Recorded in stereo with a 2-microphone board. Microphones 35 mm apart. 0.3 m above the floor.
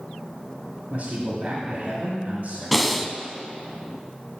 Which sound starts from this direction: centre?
Breathing, at 2.7 s.